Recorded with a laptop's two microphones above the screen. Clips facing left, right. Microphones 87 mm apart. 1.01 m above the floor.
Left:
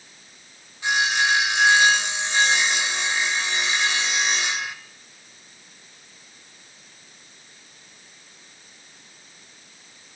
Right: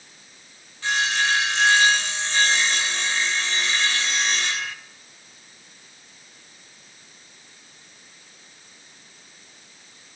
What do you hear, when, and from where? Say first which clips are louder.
0.8 s sawing: left 1 dB; 15° left (ahead or behind), 0.8 m